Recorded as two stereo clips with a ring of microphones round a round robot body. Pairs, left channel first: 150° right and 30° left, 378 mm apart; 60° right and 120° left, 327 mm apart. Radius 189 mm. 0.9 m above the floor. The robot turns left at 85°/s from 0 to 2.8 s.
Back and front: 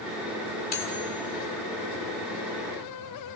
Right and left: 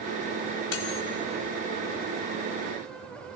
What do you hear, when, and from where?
0.7 s cutlery clinking: 80° right, 1.8 m; by 1.0 s 110° right, 1.8 m